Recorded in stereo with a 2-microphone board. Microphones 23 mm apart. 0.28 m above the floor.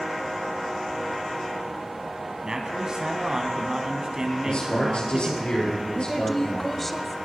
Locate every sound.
2.4 s a man speaking: 35° right (ahead or behind), 1.9 m
4.5 s a man speaking: 60° left (ahead or behind), 6.5 m
5.9 s a woman speaking: 10° left (ahead or behind), 1.1 m